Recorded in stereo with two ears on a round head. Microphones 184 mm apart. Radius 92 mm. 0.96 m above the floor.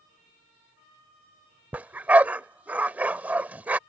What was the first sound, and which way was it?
A dog barking, 10° right (ahead or behind).